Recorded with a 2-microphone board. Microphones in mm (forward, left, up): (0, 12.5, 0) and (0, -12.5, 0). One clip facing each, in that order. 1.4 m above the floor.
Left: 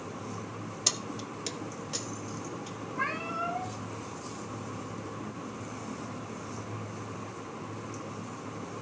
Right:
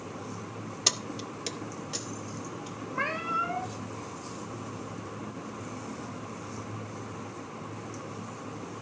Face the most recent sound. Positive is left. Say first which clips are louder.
# right 3 dB
turn(degrees=-45)  # may be behind; listen again after turning